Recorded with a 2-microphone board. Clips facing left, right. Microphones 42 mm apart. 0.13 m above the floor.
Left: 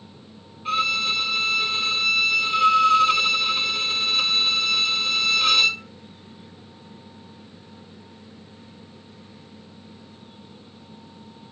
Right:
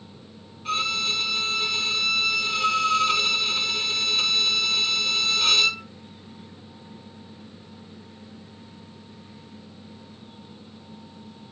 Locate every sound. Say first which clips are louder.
0.7 s a violin: left 3 dB; 10° left (ahead or behind), 1.0 m